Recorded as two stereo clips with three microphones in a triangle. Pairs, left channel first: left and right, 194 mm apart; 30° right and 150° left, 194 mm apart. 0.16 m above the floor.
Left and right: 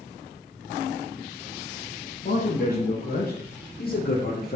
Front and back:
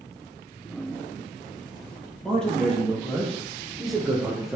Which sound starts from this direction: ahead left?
A man speaking, at 2.2 s.